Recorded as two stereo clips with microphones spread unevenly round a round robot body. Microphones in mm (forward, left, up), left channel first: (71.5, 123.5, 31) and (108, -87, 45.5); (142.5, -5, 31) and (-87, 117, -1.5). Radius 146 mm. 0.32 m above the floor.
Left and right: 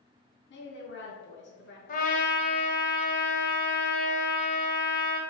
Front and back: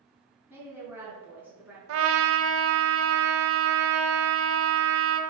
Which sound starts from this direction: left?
A woman speaking, at 0.5 s.